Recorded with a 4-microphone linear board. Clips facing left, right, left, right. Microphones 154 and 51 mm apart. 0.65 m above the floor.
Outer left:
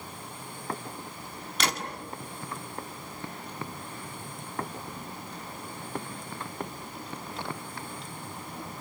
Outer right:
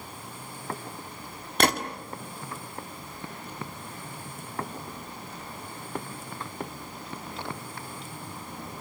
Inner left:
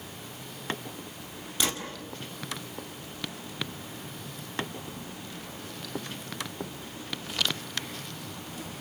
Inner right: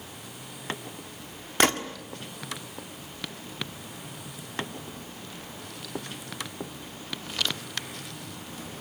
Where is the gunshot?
55° right (ahead or behind), 1.7 m.